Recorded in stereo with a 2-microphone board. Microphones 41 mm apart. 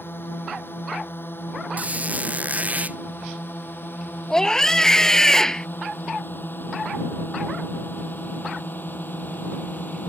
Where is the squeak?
40° right (ahead or behind).